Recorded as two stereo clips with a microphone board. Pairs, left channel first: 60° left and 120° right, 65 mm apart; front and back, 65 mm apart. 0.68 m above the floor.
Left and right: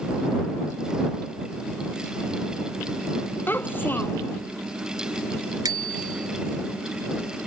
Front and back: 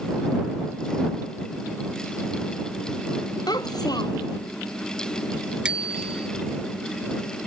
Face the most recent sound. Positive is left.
turn(degrees=-105)